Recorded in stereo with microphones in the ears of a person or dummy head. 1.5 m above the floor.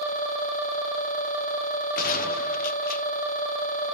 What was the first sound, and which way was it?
A gunshot, 55° left (ahead or behind).